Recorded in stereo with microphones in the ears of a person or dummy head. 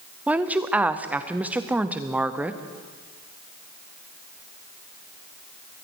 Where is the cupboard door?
No cupboard door in this recording.